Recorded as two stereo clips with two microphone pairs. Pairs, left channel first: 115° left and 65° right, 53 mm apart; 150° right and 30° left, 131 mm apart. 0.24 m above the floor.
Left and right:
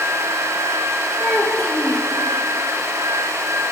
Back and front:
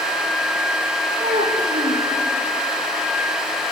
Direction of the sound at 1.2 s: 55° left.